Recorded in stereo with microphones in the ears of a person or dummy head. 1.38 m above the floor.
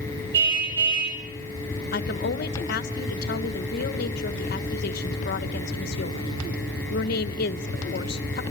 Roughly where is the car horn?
Right.